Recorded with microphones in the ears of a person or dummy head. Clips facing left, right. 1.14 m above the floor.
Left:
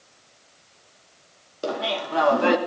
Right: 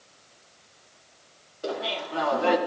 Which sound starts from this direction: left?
Laughter, at 1.6 s.